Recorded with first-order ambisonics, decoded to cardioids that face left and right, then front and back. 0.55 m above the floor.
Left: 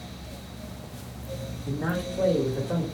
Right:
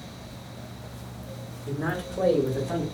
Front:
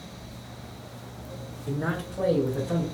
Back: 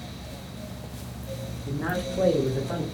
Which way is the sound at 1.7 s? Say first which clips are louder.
Even, back 2 dB; 170° right.